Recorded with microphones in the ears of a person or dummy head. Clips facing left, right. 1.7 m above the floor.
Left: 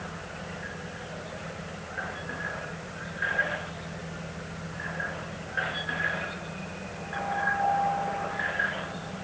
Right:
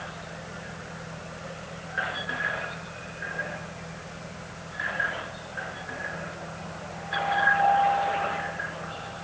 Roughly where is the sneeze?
No sneeze in this recording.